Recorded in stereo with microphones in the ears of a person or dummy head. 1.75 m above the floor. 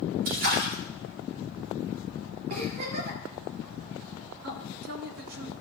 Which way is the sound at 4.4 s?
70° right (ahead or behind).